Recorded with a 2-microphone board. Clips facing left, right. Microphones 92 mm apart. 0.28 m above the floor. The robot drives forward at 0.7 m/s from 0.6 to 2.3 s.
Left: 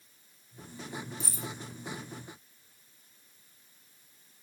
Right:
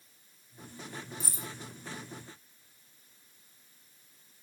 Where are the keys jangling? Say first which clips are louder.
Left 2 dB; 40° right (ahead or behind), 1.9 m.